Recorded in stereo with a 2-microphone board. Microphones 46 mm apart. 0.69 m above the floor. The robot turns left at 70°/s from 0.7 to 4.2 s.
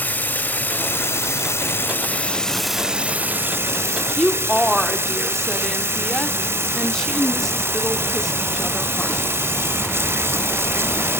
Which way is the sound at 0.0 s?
135° left.